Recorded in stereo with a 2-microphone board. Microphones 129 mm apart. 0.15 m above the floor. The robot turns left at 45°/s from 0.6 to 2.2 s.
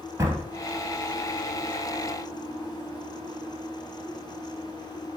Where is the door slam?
20° right (ahead or behind), 1.8 m.